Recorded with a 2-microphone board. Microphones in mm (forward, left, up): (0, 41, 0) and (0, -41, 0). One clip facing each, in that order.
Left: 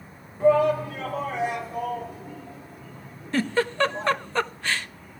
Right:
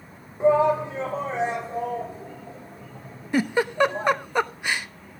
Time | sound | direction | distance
0.4 | a shout | 20° right (ahead or behind) | 3 m
3.3 | a giggle | 15° right (ahead or behind) | 0.6 m